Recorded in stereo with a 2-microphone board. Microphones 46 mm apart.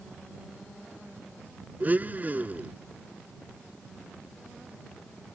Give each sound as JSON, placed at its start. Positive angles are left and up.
{"t": 1.8, "sound": "a blender", "side_deg": -40}